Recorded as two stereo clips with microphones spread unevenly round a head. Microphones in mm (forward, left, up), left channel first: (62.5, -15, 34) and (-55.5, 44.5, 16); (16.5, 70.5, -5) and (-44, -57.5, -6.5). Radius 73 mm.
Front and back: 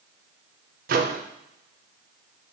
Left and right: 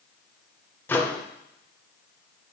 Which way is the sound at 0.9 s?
140° left.